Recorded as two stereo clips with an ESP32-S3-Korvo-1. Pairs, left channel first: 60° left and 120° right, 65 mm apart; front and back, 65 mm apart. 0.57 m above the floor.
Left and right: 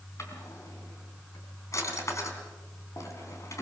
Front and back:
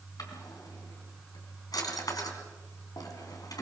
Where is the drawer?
20° left, 3.5 m.